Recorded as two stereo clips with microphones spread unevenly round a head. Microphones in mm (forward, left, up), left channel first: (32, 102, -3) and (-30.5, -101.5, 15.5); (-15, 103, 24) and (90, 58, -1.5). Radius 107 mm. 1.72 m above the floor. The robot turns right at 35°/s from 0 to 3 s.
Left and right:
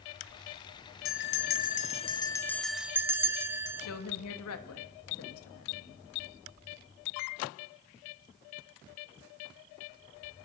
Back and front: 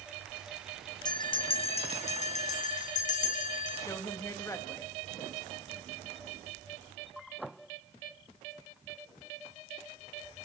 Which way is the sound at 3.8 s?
95° left.